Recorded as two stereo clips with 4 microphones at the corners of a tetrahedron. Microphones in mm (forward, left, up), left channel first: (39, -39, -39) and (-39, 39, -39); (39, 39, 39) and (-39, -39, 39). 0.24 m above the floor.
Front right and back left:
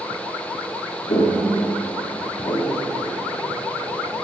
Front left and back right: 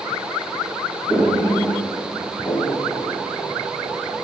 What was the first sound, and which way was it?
Footsteps, 40° right.